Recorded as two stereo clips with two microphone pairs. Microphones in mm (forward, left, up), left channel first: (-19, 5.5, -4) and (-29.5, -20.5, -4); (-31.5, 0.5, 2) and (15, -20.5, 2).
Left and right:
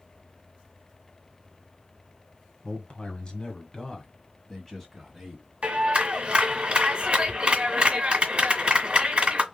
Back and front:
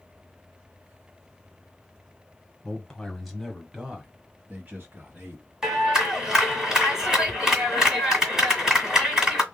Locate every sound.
2.6 s a man speaking: 90° left, 1.6 m; by 5.4 s 20° right, 1.9 m
5.6 s a clap: 100° right, 1.8 m